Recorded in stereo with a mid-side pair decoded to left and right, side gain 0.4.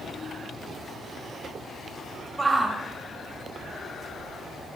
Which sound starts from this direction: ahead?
A shout, at 2.4 s.